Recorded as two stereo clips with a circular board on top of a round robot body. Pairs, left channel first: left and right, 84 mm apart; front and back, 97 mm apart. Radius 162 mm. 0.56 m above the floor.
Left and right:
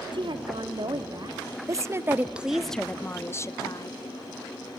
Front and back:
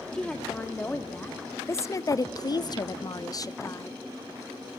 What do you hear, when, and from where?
0.1 s a woman speaking: 80° right, 2 m; by 4.0 s 55° left, 1.6 m